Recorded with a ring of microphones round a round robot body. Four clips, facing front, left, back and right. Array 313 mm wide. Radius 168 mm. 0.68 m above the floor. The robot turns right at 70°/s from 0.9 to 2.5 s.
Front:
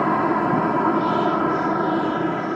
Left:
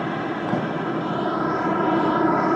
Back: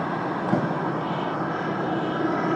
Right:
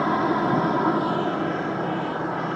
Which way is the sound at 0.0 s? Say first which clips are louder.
Right 4 dB, front 7 dB; 20° right.